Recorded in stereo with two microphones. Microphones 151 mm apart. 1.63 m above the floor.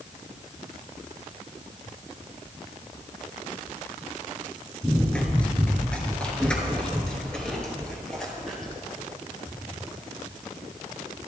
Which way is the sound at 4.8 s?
10° left (ahead or behind).